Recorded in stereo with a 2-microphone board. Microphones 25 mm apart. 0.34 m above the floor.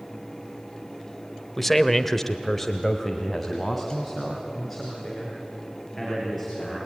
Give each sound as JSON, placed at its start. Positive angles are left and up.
{"t": 1.6, "sound": "a man speaking", "side_deg": 5, "distance_m": 1.3}